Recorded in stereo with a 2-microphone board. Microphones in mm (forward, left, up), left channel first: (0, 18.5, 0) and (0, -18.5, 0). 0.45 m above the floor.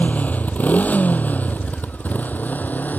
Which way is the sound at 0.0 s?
45° left (ahead or behind).